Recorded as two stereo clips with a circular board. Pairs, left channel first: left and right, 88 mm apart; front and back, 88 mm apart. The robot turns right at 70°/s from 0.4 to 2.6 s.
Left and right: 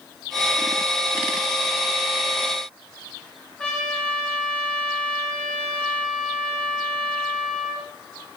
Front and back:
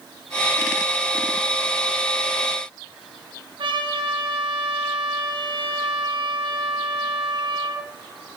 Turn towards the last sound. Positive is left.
turn(degrees=170)